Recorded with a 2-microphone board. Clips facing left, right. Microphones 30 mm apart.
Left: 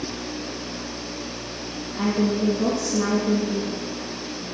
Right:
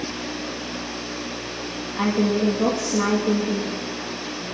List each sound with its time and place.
2.0 s a woman speaking: 55° right (ahead or behind), 1.8 m